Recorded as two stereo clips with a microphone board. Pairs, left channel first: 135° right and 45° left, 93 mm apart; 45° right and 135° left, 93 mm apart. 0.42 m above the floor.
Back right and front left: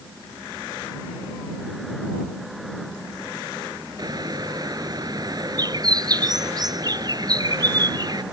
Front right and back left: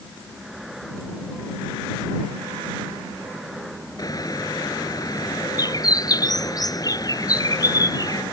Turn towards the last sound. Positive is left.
turn(degrees=5)